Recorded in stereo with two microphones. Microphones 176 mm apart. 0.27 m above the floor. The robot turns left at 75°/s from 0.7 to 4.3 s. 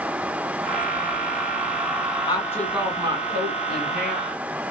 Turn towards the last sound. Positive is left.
turn(degrees=-120)